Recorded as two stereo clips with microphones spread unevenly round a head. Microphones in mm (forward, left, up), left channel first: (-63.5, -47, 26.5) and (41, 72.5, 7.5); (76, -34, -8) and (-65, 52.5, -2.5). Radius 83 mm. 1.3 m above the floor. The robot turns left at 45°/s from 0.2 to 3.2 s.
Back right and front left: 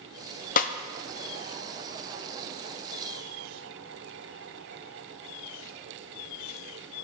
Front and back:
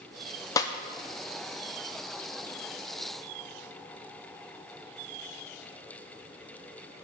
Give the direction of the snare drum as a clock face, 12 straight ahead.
3 o'clock.